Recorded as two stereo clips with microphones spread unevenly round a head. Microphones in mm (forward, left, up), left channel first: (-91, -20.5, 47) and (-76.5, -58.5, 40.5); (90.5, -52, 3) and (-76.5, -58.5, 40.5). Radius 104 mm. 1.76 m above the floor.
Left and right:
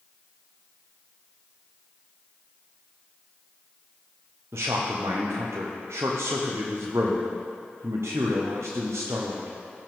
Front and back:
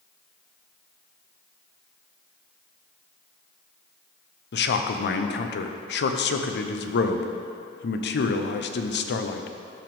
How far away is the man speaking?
About 0.8 m.